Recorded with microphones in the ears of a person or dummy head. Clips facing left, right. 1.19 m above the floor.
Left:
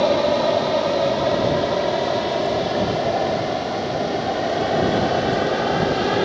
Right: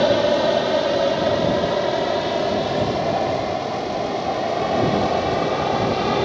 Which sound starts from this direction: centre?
An aircraft, at 0.0 s.